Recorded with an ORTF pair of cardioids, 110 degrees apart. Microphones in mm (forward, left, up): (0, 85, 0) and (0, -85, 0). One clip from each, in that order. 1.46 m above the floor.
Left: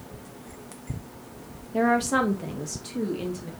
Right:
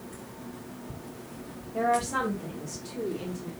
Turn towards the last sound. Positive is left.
turn(degrees=60)